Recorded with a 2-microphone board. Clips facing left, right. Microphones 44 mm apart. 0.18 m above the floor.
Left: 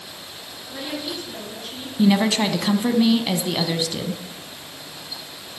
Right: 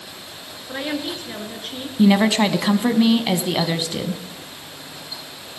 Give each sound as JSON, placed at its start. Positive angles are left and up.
{"t": 0.7, "sound": "a woman speaking", "side_deg": -50, "distance_m": 3.0}
{"t": 2.0, "sound": "a woman speaking", "side_deg": -20, "distance_m": 1.0}